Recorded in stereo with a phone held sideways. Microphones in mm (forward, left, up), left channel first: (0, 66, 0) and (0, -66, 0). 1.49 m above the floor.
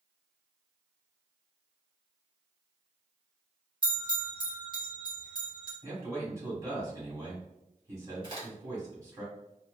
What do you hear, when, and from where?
3.8 s a bell: 35° right (ahead or behind), 1.1 m
5.8 s a man speaking: 25° right (ahead or behind), 1.6 m
8.2 s a crack: 35° right (ahead or behind), 1.6 m